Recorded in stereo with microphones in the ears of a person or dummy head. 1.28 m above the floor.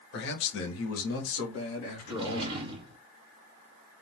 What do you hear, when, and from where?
0.1 s a man speaking: 55° left (ahead or behind), 1.0 m; by 2.6 s 65° left (ahead or behind), 2 m
2.0 s a drawer: 20° right (ahead or behind), 1.2 m